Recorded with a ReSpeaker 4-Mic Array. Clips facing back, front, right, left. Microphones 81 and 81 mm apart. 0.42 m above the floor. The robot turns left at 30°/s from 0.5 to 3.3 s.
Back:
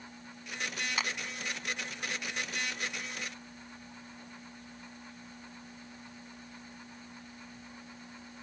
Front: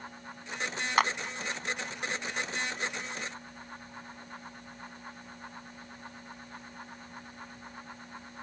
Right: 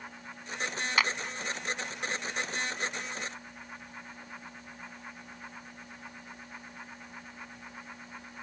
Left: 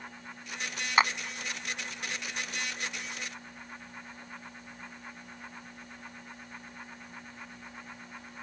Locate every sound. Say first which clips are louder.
1.0 s a clap: front 11 dB, left 4 dB; 30° left; by 1.1 s 25° left